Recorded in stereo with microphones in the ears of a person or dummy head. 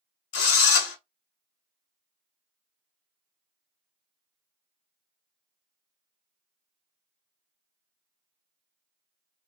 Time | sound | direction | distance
0.3 | a drill | 70° left (ahead or behind) | 1.1 m